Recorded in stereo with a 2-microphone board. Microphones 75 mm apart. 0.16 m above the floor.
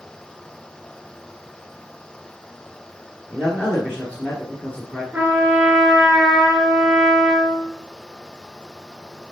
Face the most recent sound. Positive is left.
turn(degrees=-15)  # may be behind; listen again after turning